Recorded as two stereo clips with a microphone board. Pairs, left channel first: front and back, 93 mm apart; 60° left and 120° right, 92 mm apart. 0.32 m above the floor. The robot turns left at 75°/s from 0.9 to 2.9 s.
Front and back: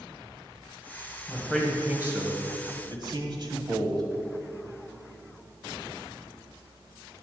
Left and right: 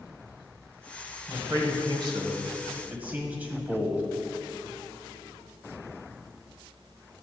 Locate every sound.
1.3 s a man speaking: 65° right, 1.7 m; by 4.0 s 175° left, 1.7 m